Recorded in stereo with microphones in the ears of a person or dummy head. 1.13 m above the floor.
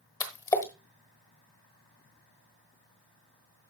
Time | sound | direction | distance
0.2 | a splash | 20° left (ahead or behind) | 1.3 m